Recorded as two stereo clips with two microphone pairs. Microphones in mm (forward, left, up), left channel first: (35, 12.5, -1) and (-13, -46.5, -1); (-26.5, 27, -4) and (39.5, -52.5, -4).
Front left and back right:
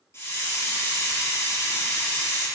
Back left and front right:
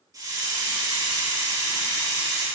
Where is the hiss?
Straight ahead, 4 m.